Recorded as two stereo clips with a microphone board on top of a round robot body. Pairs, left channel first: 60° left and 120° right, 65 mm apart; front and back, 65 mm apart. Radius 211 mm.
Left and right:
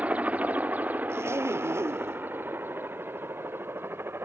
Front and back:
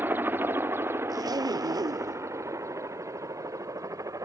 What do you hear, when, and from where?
0.0 s a helicopter: 170° right; by 4.2 s 165° right
1.1 s a zipper: 170° right